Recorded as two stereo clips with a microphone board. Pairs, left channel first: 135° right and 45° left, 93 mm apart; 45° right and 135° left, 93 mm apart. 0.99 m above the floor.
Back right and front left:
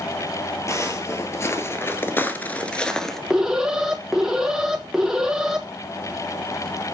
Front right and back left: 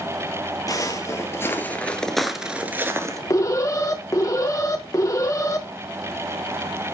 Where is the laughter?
I don't hear laughter.